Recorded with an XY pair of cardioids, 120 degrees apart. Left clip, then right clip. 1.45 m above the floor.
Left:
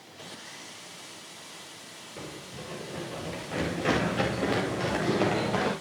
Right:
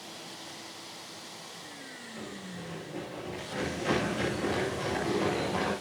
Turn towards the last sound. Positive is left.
turn(degrees=55)